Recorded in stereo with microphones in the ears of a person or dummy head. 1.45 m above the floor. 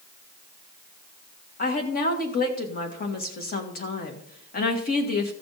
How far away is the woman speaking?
About 2 m.